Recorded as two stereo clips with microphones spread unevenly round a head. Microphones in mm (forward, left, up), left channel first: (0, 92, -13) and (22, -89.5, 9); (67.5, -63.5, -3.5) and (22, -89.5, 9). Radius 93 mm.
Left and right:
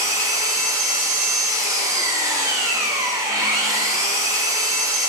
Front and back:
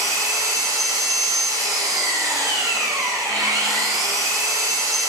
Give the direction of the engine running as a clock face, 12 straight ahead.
5 o'clock.